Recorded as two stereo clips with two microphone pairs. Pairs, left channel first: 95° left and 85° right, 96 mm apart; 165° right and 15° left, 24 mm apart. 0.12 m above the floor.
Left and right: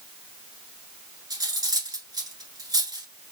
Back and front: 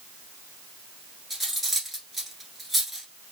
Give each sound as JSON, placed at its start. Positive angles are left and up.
{"t": 1.3, "sound": "cutlery clinking", "azimuth_deg": -70, "distance_m": 1.1}